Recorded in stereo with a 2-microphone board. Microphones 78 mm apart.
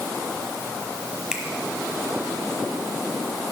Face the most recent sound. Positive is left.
turn(degrees=-10)  # may be behind; listen again after turning